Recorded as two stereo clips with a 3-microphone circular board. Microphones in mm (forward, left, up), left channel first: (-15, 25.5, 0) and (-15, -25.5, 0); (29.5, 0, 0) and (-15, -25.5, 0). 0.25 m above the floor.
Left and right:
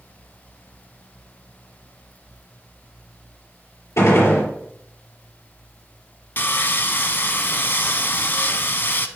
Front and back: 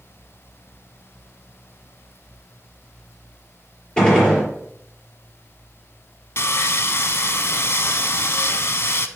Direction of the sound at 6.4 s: 50° left.